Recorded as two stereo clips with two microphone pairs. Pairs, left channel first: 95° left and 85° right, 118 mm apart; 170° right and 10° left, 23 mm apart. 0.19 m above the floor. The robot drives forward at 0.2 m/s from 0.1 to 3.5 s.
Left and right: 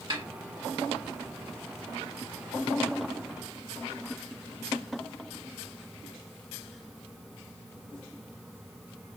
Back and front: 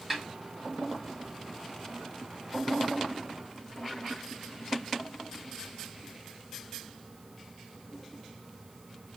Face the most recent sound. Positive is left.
turn(degrees=-105)